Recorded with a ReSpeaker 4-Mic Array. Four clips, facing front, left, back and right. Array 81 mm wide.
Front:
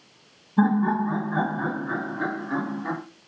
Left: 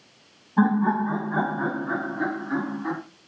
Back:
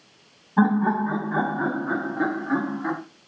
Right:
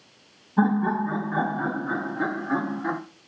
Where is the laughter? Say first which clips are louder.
Left 1 dB, back 1 dB; 165° left, 2 m; by 3.0 s 155° right, 1.8 m.